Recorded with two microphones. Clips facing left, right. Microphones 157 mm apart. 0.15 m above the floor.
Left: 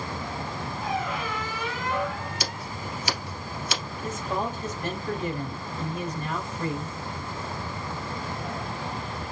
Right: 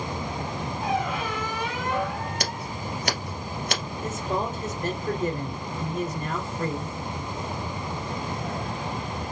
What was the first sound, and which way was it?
A squeak, 60° right (ahead or behind).